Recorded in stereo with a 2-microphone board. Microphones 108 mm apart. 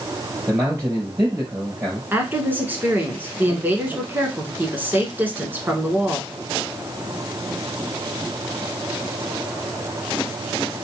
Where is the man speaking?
20° right (ahead or behind), 3.5 m.